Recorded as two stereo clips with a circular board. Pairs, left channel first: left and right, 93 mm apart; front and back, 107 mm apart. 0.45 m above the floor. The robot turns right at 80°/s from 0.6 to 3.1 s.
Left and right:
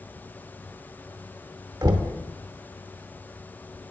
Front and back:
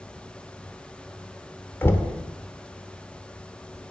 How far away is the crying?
No crying in this recording.